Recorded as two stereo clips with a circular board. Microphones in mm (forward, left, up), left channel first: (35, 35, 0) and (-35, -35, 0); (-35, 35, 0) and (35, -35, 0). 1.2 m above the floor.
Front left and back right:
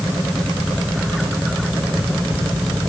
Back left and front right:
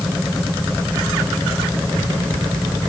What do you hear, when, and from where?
Only background noise.